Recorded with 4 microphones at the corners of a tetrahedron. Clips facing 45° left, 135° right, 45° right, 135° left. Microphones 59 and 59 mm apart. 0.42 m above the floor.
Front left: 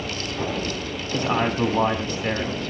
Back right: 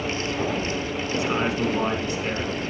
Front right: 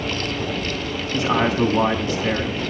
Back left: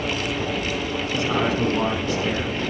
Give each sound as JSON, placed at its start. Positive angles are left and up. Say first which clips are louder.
{"t": 1.1, "sound": "a man speaking", "louder": "front left 3 dB, front right 4 dB", "azimuth_deg": 15, "distance_m": 2.5}